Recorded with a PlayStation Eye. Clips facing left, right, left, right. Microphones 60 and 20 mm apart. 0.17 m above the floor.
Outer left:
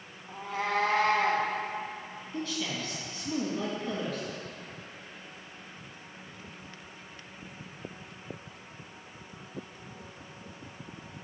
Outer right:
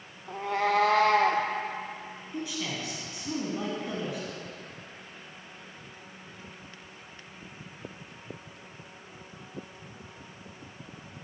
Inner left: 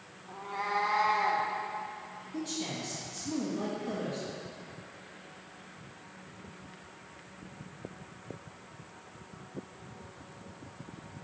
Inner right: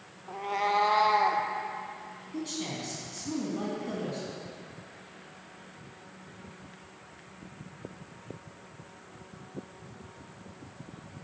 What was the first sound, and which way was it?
A cat meowing, 80° right.